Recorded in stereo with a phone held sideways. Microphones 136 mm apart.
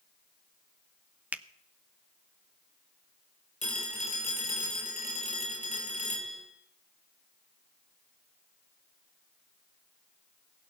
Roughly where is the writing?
No writing in this recording.